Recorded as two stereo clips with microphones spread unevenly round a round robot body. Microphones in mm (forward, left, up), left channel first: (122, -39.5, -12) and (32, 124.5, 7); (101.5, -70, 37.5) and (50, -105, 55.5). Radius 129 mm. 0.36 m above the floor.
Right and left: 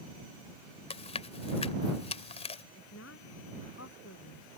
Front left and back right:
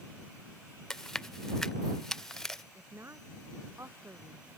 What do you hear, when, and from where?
0.9 s chewing: 30° right
2.8 s a woman speaking: 105° right